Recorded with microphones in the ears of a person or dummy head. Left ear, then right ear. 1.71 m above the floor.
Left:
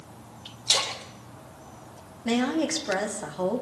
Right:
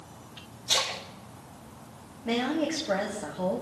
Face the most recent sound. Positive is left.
turn(degrees=70)  # may be behind; listen again after turning